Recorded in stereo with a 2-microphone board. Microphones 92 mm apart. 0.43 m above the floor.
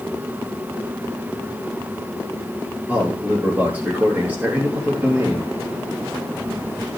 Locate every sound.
2.9 s a man speaking: 20° right (ahead or behind), 9 m